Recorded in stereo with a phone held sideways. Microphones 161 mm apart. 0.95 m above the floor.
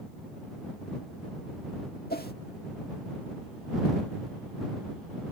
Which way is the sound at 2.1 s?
75° left (ahead or behind).